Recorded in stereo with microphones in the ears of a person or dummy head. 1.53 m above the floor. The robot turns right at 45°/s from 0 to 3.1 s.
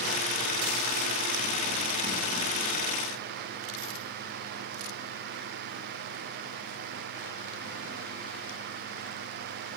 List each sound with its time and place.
Only background noise.